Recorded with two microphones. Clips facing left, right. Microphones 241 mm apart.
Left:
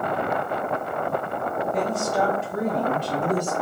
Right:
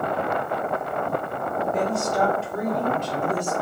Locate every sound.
1.7 s a woman speaking: 5° right (ahead or behind), 0.9 m; by 3.5 s 45° left (ahead or behind), 1.2 m